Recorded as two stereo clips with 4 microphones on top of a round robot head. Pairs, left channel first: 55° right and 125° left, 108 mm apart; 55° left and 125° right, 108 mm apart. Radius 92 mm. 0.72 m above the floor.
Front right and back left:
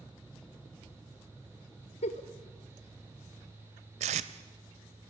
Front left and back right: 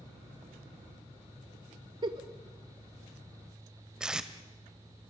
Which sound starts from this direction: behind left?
Tape being pulled, at 4.0 s.